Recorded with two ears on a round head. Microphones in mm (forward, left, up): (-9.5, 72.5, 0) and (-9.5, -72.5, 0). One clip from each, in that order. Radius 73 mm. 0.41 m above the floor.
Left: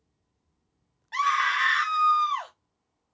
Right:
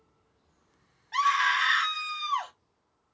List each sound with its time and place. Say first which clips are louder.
1.1 s a scream: even; 25° left (ahead or behind), 1.7 m